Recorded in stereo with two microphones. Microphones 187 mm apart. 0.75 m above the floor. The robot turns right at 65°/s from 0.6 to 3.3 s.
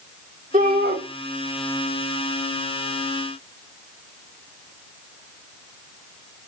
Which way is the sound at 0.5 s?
45° right (ahead or behind).